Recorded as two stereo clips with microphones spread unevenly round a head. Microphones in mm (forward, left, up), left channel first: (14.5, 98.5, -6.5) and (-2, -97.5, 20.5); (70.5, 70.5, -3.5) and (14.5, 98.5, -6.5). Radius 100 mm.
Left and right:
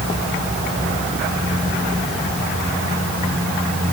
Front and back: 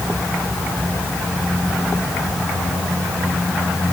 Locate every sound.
Only background noise.